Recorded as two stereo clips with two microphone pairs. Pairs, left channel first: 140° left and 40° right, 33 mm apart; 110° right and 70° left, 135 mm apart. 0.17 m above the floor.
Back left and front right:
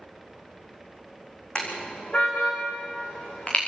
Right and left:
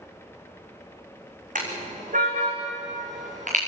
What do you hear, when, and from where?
1.6 s a car horn: 80° left, 4.5 m; by 3.6 s 85° left, 7 m